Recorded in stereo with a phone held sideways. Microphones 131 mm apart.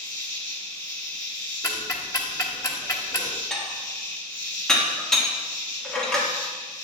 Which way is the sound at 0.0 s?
30° left (ahead or behind).